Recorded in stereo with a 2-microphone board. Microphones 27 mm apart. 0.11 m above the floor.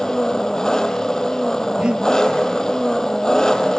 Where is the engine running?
25° left (ahead or behind), 1.1 m.